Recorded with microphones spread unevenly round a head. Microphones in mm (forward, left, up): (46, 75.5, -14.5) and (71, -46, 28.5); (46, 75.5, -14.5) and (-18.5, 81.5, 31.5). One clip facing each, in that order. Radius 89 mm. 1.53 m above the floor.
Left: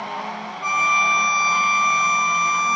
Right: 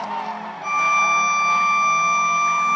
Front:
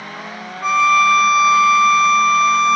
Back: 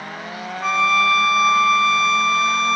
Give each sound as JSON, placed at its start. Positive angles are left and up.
{"t": 0.6, "sound": "a violin", "azimuth_deg": 90, "distance_m": 0.7}